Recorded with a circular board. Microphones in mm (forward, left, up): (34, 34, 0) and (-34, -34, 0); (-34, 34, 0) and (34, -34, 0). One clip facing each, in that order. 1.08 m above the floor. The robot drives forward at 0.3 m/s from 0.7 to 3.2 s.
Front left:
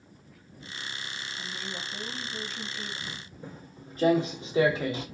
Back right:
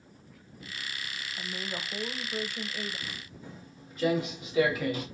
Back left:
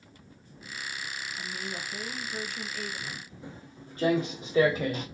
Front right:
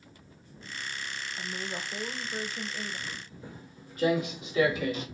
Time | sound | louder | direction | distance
1.4 | a woman speaking | back right 3 dB, front right 2 dB | 95° right | 1.0 m
3.1 | footsteps | front left 2 dB, back left 1 dB | 65° left | 1.8 m